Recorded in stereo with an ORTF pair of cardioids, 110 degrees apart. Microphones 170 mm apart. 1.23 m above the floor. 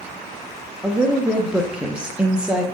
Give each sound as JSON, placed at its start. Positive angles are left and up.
{"t": 0.8, "sound": "a woman speaking", "azimuth_deg": -5, "distance_m": 0.6}